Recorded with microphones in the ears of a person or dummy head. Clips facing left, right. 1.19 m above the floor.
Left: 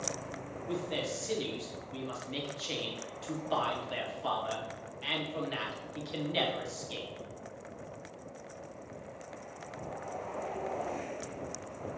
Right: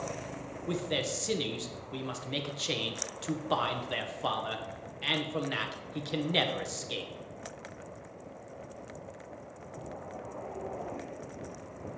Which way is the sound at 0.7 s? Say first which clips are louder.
Right 2 dB; 60° right (ahead or behind).